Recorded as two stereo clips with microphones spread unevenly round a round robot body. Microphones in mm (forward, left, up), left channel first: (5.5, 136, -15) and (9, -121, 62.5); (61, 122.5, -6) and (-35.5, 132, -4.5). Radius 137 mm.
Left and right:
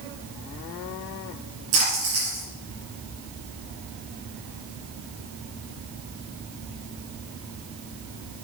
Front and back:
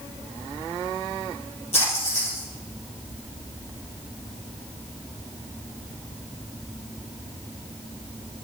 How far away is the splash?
About 5.5 m.